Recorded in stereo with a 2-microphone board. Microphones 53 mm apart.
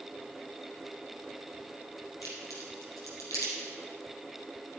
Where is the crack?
70° left (ahead or behind), 3.5 m.